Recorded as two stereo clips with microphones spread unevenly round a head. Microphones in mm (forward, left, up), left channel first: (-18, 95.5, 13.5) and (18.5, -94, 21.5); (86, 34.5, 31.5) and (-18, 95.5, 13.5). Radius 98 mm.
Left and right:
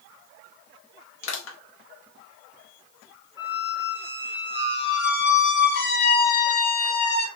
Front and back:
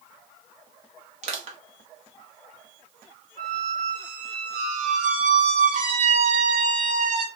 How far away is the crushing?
About 0.9 m.